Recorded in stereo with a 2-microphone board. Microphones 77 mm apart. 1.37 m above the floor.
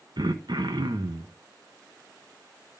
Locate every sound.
0.2 s throat clearing: 70° right (ahead or behind), 1.0 m